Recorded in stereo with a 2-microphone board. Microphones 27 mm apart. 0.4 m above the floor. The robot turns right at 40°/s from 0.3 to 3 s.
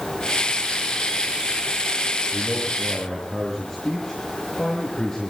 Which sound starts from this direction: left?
A man speaking, at 2.3 s.